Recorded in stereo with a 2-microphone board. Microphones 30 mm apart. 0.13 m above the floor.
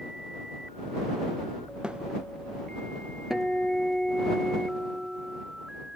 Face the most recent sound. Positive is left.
turn(degrees=-10)  # may be behind; listen again after turning